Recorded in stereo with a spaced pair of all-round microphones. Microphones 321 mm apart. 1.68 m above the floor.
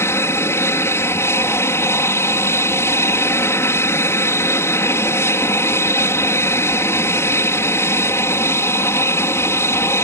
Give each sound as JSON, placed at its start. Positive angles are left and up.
{"t": 0.0, "sound": "an aircraft", "side_deg": 10}